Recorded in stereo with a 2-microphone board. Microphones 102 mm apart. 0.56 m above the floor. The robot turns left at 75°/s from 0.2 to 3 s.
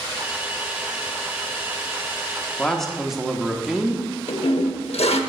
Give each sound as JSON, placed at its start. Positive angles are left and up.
{"t": 2.6, "sound": "a man speaking", "azimuth_deg": 25, "distance_m": 0.8}
{"t": 4.3, "sound": "a toilet flushing", "side_deg": 85, "distance_m": 0.7}